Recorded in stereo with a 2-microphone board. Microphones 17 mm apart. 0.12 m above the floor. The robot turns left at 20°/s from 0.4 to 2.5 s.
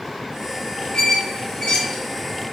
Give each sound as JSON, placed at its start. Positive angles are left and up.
{"t": 0.9, "sound": "a squeak", "side_deg": 60, "distance_m": 1.5}